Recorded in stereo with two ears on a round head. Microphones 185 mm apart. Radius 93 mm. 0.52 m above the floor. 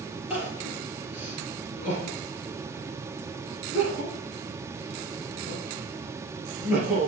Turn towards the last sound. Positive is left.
turn(degrees=-10)  # may be behind; listen again after turning